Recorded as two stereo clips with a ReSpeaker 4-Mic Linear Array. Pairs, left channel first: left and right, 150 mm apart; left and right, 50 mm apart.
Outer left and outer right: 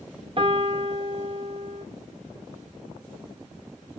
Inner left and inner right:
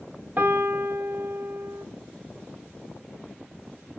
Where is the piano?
40° right (ahead or behind), 0.8 m.